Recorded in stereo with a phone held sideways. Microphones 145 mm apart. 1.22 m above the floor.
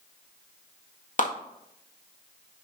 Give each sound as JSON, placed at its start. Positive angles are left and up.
{"t": 1.2, "sound": "a clap", "side_deg": 60, "distance_m": 1.8}